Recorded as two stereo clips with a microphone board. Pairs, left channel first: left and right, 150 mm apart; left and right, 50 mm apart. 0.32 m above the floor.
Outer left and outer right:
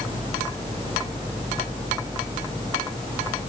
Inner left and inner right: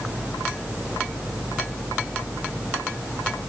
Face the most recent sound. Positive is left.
No sound to turn to.